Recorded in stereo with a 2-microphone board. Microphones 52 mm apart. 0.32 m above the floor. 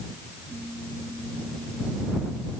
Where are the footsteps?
No footsteps in this recording.